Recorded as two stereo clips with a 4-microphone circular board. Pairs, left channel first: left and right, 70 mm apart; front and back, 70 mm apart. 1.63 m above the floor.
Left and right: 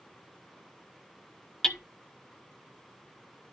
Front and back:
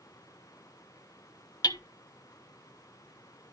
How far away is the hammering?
About 0.7 m.